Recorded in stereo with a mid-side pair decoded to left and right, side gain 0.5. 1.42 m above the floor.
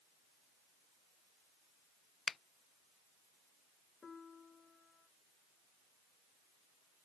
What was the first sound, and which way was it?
A finger snap, 40° left.